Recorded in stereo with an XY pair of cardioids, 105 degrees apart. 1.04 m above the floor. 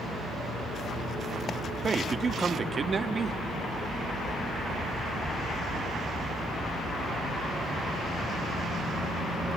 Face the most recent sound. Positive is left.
turn(degrees=-35)